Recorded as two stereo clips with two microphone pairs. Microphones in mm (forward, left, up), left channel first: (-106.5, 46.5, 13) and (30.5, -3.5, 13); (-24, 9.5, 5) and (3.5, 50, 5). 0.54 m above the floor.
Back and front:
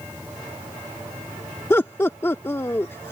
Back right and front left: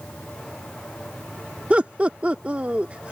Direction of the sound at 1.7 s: 100° left.